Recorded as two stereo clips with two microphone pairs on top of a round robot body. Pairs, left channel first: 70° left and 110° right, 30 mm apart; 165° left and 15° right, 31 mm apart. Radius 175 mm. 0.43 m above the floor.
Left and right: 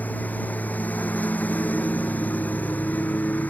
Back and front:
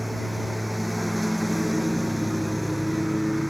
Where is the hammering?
No hammering in this recording.